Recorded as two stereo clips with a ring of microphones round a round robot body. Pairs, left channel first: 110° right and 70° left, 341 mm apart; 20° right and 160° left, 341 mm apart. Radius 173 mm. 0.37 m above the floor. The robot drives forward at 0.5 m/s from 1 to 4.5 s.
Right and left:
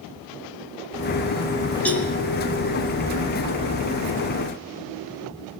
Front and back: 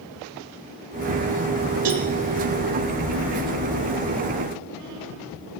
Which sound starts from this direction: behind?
A cowbell, at 1.9 s.